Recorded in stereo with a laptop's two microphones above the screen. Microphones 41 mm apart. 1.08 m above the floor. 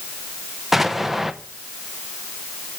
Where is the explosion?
5° right (ahead or behind), 0.8 m.